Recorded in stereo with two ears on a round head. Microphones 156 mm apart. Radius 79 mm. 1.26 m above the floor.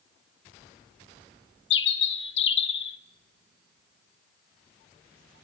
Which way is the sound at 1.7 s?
70° left (ahead or behind).